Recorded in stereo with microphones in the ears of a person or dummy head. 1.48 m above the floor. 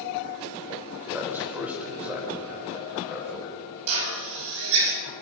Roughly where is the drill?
Right.